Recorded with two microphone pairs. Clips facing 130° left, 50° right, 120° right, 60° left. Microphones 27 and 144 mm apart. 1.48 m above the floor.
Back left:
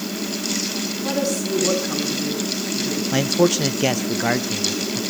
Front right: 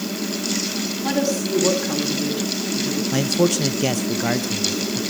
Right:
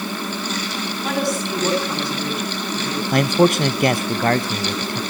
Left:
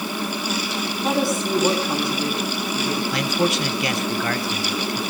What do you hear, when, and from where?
1.0 s a woman speaking: 10° right, 8.5 m; by 3.0 s 15° right, 9 m
3.1 s a man speaking: 155° right, 1.0 m